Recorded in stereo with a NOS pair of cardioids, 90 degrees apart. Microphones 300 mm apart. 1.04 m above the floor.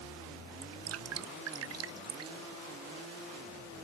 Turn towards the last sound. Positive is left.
turn(degrees=-55)